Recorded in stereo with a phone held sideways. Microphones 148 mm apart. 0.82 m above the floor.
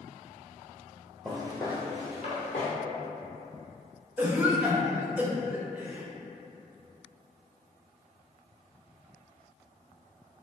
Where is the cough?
10° right (ahead or behind), 0.6 m.